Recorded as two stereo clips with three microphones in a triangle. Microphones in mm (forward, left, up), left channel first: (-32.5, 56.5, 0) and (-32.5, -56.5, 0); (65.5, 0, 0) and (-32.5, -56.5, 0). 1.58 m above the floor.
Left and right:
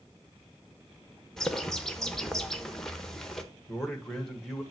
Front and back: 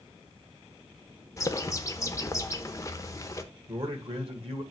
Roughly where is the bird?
Ahead.